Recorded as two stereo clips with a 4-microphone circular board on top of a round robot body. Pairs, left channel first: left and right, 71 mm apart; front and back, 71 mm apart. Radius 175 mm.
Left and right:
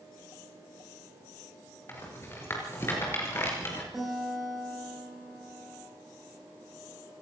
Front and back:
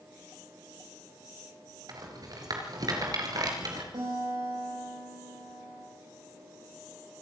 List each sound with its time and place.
1.9 s a rattle: 150° left, 4 m
3.9 s a guitar: straight behind, 9 m